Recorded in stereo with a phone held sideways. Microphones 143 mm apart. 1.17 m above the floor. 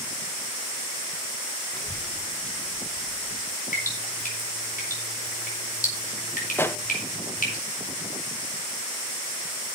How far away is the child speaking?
About 0.9 m.